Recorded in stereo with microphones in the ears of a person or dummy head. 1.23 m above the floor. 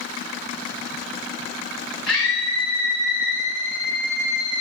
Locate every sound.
2.1 s a scream: centre (ahead or behind), 5.5 m; by 4.6 s 25° right (ahead or behind), 3.5 m